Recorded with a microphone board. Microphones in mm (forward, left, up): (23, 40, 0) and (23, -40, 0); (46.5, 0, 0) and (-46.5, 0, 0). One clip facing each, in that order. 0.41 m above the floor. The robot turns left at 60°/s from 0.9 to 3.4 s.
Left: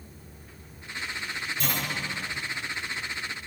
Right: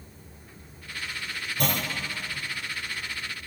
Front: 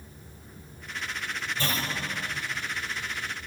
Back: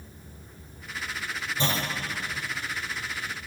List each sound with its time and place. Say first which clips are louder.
1.6 s a clunk: right 5 dB, back 3 dB; 115° right, 0.7 m; by 1.9 s 135° right, 0.7 m